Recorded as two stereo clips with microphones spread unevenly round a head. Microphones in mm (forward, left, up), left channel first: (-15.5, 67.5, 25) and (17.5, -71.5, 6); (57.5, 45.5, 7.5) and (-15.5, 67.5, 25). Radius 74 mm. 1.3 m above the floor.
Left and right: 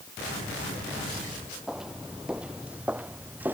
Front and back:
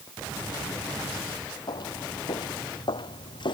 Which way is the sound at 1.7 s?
10° left.